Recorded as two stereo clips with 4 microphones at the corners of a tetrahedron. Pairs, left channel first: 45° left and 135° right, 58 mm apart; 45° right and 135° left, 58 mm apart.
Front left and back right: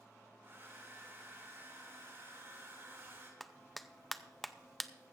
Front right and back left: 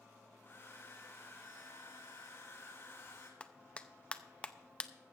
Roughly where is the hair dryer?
Right.